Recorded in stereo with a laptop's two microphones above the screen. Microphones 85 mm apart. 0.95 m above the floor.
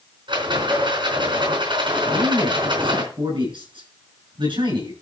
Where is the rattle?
70° right (ahead or behind), 4 m.